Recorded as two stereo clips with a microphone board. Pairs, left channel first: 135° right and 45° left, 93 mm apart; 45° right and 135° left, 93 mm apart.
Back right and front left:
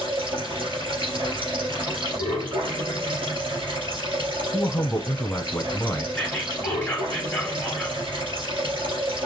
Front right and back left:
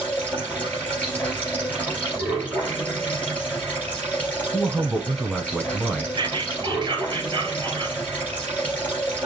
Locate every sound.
0.0 s running water: 30° left, 3 m
4.5 s a man speaking: 130° right, 1.1 m
6.2 s whispering: 145° left, 2.5 m